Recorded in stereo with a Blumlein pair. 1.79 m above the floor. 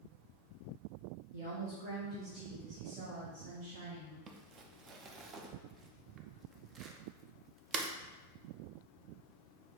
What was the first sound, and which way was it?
A woman speaking, 65° right.